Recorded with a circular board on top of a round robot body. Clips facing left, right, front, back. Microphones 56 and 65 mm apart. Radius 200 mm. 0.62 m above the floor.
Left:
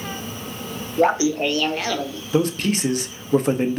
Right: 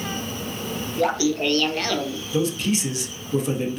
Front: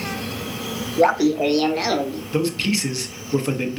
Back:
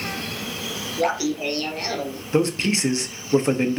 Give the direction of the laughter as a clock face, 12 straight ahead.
10 o'clock.